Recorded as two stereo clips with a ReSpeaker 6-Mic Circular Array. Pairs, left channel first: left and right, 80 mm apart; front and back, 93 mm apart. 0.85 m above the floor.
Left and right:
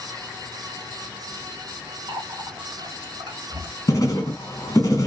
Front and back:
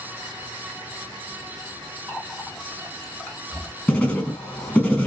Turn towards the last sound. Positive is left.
turn(degrees=65)